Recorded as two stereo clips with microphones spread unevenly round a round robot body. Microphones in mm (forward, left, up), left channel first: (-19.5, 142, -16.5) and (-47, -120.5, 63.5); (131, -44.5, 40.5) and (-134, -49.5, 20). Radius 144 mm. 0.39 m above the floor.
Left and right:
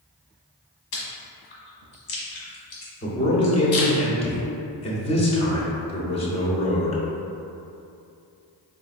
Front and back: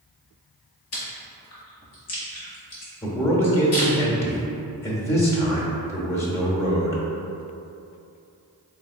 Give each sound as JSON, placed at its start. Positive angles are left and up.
{"t": 0.9, "sound": "chewing", "azimuth_deg": 60, "distance_m": 1.4}
{"t": 3.0, "sound": "a man speaking", "azimuth_deg": 80, "distance_m": 0.9}